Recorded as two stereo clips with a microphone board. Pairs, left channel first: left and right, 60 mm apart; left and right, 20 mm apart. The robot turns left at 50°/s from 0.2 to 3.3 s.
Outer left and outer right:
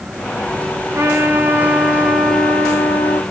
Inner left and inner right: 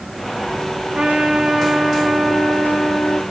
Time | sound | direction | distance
0.9 | a trumpet | 115° right | 1.6 m